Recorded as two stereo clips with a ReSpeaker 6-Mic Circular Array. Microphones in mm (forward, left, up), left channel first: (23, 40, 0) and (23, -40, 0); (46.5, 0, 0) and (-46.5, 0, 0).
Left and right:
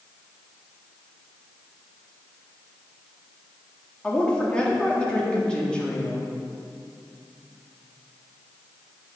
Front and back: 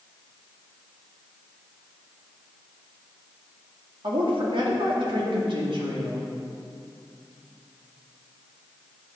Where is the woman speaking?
165° left, 1.8 m.